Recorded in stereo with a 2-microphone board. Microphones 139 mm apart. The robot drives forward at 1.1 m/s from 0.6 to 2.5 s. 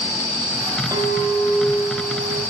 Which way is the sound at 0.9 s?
25° right (ahead or behind).